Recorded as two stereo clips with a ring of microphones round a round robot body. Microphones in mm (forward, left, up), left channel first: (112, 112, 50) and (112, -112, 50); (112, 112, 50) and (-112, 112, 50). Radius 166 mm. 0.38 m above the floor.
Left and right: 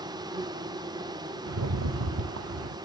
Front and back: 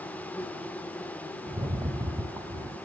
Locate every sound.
0.0 s an insect: 70° right, 1.0 m
1.5 s a rattle: 100° right, 0.8 m